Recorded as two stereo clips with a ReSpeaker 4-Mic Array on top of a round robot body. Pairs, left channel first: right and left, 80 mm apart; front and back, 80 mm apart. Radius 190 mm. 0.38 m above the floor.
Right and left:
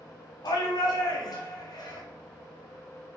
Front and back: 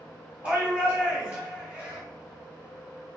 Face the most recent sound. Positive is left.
turn(degrees=-110)